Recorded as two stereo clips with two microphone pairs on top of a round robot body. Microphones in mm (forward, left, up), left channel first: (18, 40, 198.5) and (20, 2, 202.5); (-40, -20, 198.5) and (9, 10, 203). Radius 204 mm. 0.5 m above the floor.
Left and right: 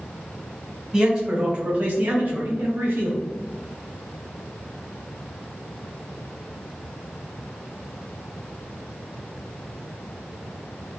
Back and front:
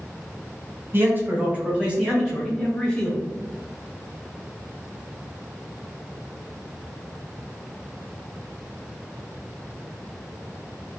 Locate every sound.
0.9 s a man speaking: 10° right, 1.6 m; by 3.2 s 85° right, 1.5 m